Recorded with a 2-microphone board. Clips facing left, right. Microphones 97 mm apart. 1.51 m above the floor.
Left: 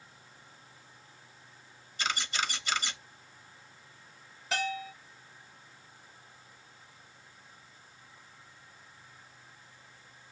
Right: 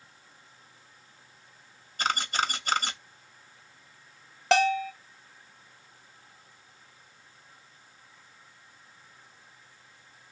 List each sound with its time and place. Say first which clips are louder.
2.0 s a camera shutter: right 5 dB; 45° right (ahead or behind), 1.1 m
4.5 s a bell: right 11 dB; 80° right, 0.6 m